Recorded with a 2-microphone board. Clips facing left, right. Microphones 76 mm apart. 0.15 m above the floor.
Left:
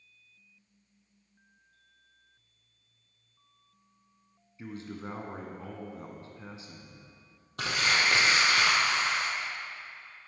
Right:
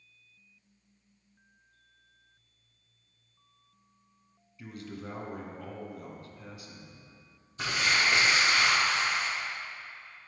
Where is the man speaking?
30° left (ahead or behind), 1.1 m.